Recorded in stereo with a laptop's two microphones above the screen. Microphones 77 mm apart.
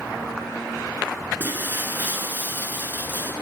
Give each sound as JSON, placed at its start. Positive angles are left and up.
{"t": 1.4, "sound": "breaking glass", "side_deg": -25, "distance_m": 8.0}